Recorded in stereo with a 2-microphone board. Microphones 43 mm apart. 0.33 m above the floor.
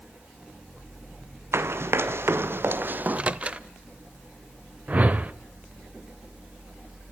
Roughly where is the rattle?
I don't hear a rattle.